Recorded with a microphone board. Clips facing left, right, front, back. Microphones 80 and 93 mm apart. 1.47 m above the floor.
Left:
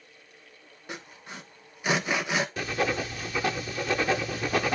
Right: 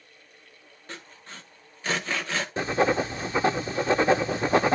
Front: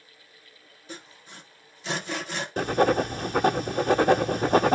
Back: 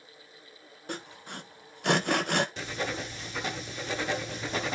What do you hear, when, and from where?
0.9 s sawing: 165° left, 1.1 m
2.6 s writing: 30° right, 0.7 m